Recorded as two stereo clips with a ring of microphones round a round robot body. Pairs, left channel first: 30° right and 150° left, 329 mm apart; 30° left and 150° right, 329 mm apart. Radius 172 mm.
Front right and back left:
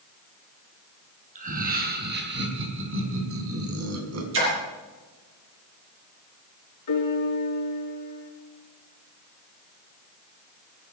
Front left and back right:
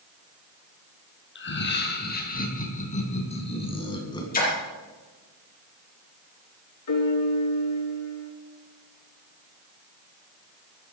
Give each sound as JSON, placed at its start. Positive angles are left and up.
{"t": 1.4, "sound": "laughter", "azimuth_deg": 85, "distance_m": 3.5}
{"t": 4.3, "sound": "a splash", "azimuth_deg": 95, "distance_m": 6.5}
{"t": 6.9, "sound": "a piano", "azimuth_deg": 0, "distance_m": 4.5}